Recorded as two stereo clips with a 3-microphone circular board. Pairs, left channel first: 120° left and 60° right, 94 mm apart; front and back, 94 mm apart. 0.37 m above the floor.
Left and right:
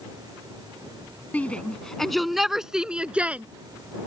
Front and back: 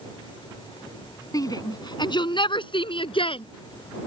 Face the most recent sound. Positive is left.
turn(degrees=15)